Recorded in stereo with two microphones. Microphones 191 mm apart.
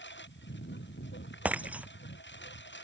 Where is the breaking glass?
5° right (ahead or behind).